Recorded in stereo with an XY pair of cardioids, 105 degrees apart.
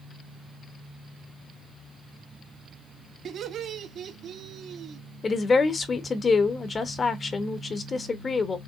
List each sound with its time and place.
3.2 s laughter: 60° right, 2 m
5.2 s a woman speaking: 40° left, 1.2 m